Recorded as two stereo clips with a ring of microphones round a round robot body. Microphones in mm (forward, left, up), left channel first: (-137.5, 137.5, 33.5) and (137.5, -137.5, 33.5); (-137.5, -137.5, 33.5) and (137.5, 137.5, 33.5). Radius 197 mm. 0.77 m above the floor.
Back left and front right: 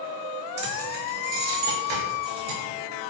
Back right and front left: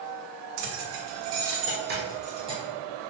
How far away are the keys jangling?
About 1.7 m.